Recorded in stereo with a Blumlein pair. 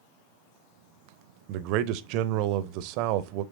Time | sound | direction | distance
1.5 | a man speaking | 45° right | 0.6 m